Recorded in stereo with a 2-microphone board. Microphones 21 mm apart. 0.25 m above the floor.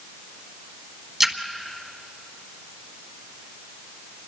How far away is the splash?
About 1.2 m.